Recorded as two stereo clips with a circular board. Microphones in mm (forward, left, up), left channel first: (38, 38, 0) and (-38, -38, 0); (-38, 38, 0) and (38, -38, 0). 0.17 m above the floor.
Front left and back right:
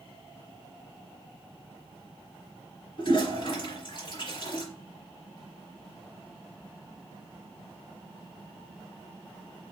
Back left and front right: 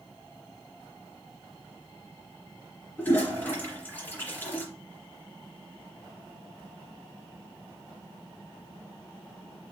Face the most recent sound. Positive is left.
turn(degrees=65)